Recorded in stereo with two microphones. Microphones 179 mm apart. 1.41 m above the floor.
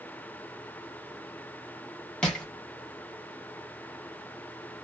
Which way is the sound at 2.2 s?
5° left (ahead or behind).